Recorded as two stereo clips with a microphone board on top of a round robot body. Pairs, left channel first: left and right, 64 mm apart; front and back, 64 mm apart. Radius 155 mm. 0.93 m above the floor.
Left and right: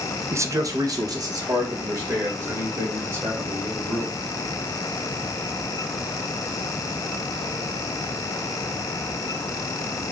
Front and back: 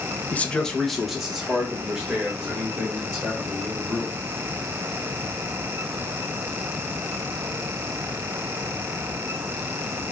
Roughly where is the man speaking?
Ahead right.